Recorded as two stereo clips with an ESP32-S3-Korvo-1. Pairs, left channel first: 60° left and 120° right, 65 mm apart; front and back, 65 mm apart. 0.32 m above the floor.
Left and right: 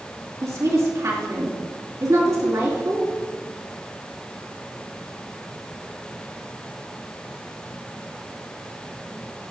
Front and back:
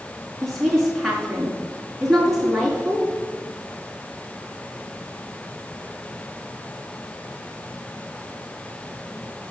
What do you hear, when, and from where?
0.4 s a woman speaking: 85° right, 4 m